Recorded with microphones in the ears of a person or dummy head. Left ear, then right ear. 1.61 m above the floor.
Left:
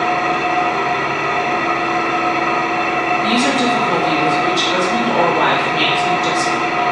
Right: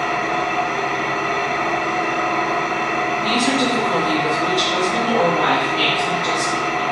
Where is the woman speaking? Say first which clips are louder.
Left 3 dB; 65° left (ahead or behind), 1.1 m.